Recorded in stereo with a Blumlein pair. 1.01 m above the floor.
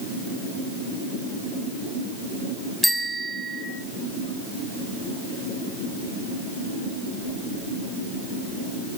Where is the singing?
No singing in this recording.